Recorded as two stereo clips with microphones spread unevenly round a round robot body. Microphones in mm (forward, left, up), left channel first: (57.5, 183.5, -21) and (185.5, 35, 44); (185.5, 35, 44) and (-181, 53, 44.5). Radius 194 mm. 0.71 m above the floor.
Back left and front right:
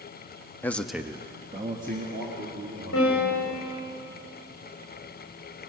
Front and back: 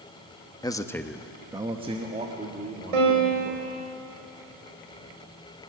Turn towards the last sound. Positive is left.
turn(degrees=-175)